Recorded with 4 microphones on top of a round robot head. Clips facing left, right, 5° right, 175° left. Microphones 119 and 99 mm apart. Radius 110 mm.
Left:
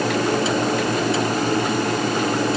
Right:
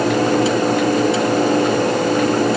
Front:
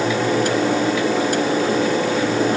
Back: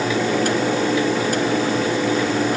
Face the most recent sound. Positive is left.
No sound to turn to.